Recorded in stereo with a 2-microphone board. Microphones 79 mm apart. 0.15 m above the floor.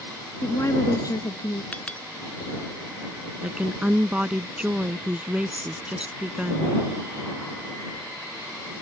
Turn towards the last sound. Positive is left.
turn(degrees=-15)  # may be behind; listen again after turning